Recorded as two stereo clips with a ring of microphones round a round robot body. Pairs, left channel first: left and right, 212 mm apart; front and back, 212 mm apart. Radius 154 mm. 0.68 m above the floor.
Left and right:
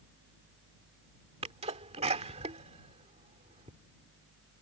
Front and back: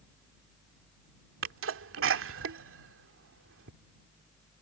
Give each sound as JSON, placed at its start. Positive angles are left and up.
{"t": 1.4, "sound": "a sneeze", "azimuth_deg": -155}